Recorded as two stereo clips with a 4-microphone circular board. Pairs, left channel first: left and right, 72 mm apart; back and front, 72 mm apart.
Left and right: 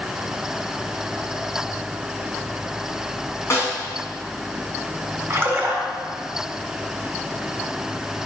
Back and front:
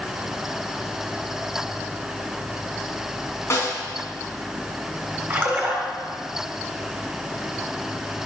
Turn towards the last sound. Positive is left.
turn(degrees=-45)